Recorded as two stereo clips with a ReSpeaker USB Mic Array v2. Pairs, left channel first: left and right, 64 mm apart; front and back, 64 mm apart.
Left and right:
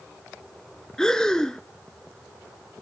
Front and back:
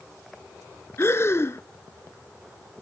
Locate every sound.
1.0 s breathing: 15° left, 0.8 m